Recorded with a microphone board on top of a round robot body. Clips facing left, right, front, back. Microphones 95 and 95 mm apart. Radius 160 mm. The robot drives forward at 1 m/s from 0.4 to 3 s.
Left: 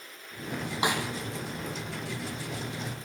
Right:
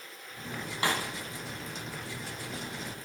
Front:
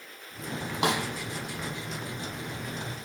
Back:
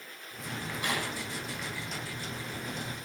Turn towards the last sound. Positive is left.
turn(degrees=25)